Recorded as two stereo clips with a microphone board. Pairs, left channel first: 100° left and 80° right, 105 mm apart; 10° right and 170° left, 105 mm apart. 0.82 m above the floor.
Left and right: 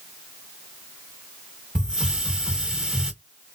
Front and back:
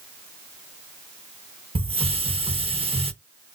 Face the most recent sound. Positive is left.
turn(degrees=-160)